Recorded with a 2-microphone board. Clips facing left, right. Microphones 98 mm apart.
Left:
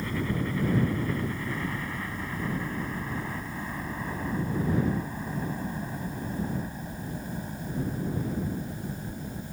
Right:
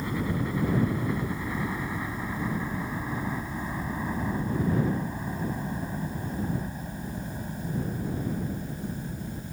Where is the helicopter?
15° right (ahead or behind); by 9.5 s 5° left (ahead or behind).